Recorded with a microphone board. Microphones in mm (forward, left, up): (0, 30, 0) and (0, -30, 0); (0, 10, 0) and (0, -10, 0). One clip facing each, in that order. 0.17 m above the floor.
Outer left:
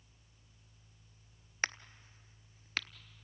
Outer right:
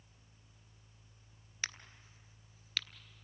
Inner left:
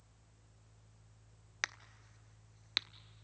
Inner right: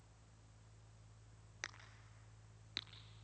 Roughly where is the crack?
Left.